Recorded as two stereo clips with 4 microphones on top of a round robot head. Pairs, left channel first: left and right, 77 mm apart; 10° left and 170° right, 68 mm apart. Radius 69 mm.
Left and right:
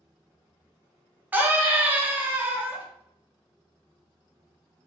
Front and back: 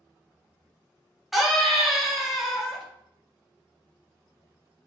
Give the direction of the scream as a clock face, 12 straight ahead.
3 o'clock.